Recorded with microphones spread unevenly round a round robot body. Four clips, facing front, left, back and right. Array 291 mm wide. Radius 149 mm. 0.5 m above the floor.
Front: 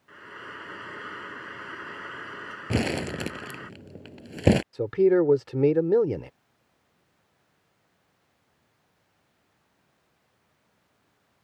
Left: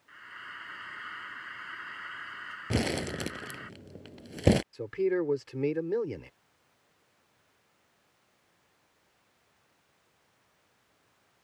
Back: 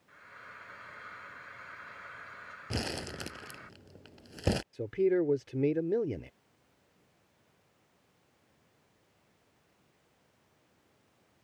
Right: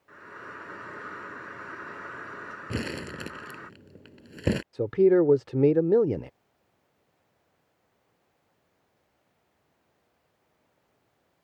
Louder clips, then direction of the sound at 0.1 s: Right 4 dB, front 9 dB; 35° right.